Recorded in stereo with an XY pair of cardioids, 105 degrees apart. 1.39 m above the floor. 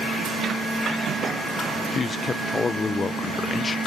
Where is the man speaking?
35° left, 0.7 m.